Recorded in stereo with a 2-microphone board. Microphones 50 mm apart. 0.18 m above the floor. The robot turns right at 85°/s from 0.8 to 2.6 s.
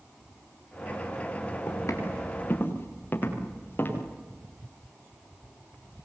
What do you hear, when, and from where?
1.7 s footsteps: 60° left (ahead or behind), 8.5 m; by 4.0 s 35° left (ahead or behind), 7 m